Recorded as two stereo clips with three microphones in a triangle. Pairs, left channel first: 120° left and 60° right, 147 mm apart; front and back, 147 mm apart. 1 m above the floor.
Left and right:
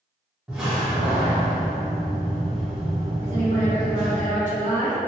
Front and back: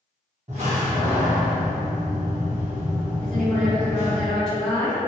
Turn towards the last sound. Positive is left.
turn(degrees=-85)